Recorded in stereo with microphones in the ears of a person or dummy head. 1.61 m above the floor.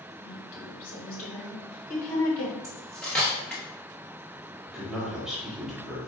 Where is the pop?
No pop in this recording.